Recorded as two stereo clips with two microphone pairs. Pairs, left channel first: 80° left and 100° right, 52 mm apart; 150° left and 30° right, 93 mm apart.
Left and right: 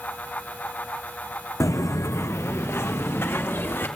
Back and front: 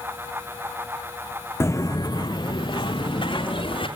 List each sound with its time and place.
1.6 s footsteps: 85° left, 0.6 m; by 3.9 s 130° left, 2 m